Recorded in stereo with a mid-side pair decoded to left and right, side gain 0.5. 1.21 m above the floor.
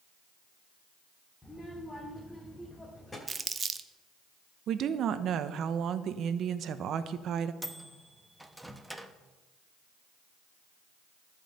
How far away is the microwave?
About 1.1 m.